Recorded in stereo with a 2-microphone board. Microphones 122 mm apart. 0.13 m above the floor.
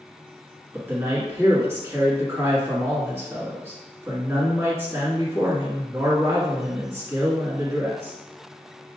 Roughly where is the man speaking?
Right.